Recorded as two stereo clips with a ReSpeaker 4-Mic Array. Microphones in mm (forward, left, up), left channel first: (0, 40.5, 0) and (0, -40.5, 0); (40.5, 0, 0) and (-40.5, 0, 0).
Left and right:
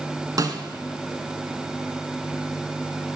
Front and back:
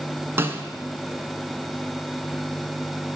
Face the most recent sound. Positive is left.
turn(degrees=-125)